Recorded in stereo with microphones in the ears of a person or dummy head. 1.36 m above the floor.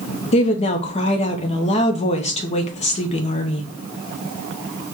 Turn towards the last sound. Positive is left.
turn(degrees=30)  # may be behind; listen again after turning